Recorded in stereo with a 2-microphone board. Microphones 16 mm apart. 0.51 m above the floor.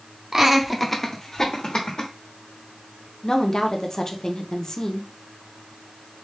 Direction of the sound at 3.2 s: 35° left (ahead or behind).